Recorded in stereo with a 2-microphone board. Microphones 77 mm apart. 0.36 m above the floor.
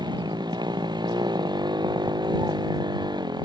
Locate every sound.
0.0 s a motorcycle: 85° right